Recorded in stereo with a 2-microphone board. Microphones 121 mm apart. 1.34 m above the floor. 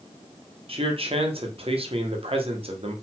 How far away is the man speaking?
About 0.9 m.